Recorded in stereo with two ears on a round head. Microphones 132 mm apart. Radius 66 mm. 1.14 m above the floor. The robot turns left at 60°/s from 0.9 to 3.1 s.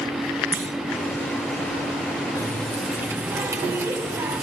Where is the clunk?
15° right (ahead or behind), 6 m.